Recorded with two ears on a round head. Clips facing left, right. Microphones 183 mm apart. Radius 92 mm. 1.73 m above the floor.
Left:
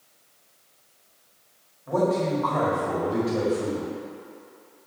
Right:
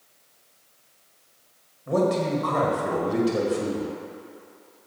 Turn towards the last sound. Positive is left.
turn(degrees=-35)  # may be behind; listen again after turning